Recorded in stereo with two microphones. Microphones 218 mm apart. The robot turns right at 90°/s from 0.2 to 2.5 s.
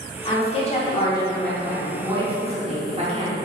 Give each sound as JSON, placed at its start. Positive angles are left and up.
{"t": 0.2, "sound": "a woman speaking", "side_deg": 25, "distance_m": 0.8}